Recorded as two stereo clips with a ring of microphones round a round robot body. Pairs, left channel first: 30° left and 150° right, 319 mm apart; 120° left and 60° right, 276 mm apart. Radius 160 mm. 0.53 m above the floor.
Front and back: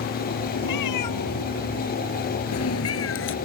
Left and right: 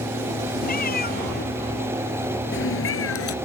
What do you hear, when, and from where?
0.6 s a cat meowing: 60° left; by 3.4 s 85° left